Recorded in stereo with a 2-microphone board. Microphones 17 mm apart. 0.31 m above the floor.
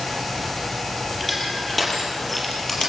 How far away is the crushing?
About 6.5 m.